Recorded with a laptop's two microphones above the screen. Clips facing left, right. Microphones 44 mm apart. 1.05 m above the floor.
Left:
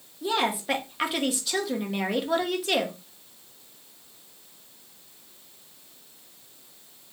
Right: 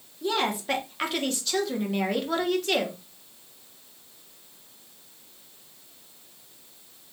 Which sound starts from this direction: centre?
A woman speaking, at 0.2 s.